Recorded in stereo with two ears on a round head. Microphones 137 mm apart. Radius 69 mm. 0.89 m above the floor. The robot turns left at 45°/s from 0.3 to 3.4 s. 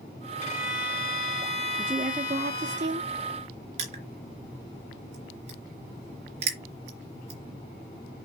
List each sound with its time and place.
0.4 s a violin: 135° left, 2 m; by 2.8 s 25° left, 2 m
1.8 s a woman speaking: 10° right, 1.5 m; by 3.1 s 70° right, 1.5 m
3.8 s crushing: 45° right (ahead or behind), 3 m